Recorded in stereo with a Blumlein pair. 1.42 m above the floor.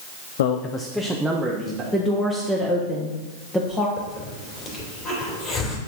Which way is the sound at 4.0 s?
25° left.